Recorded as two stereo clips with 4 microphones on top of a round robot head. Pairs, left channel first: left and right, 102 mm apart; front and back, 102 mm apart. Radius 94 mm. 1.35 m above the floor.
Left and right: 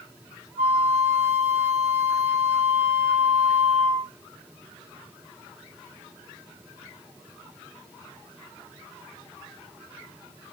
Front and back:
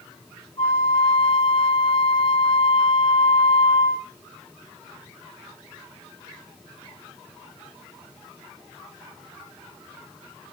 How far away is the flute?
About 1.8 m.